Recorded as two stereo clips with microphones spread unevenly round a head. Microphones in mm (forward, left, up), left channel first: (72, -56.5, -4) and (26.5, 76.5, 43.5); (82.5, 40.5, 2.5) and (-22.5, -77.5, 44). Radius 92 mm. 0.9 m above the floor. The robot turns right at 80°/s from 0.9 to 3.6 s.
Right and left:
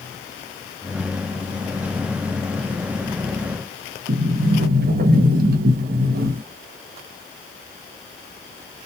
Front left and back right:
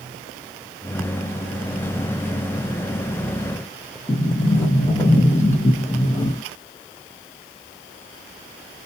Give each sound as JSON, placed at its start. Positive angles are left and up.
{"t": 4.1, "sound": "a sliding door", "azimuth_deg": 105, "distance_m": 0.7}